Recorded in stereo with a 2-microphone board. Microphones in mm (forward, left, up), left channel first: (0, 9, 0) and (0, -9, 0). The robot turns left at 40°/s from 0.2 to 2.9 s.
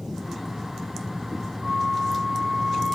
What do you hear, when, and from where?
1.6 s a flute: 120° right, 3.5 m; by 3.0 s 170° right, 3.5 m